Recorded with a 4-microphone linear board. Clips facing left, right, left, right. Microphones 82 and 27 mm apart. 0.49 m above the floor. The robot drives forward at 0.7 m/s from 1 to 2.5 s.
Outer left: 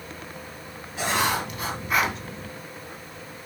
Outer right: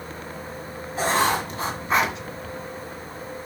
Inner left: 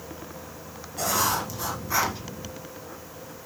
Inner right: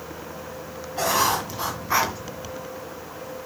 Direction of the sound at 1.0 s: 40° right (ahead or behind).